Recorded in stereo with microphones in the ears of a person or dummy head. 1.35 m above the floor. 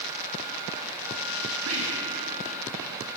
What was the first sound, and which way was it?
Whispering, 80° right.